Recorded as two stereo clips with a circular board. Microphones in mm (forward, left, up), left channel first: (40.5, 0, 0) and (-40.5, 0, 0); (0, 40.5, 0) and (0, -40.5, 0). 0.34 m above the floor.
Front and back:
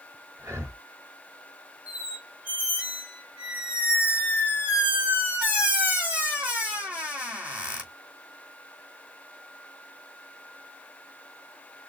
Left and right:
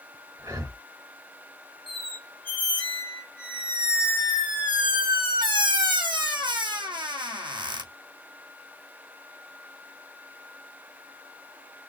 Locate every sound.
0.4 s breathing: 130° right, 2.5 m
1.9 s a squeak: 105° right, 2.5 m